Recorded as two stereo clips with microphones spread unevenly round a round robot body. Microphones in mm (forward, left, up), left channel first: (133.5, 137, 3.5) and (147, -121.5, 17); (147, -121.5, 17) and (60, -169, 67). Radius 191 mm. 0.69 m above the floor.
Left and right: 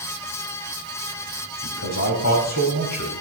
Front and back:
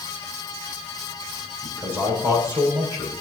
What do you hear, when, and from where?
1.6 s a man speaking: 135° left, 4 m